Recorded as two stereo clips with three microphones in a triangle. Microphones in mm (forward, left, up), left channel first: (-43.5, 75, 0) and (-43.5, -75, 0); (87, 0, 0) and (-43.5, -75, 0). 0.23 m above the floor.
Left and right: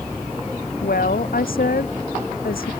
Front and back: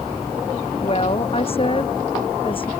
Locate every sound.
0.8 s a woman speaking: 80° left; by 2.7 s 85° left